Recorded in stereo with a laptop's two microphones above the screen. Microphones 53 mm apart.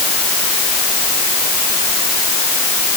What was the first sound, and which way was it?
Only background noise.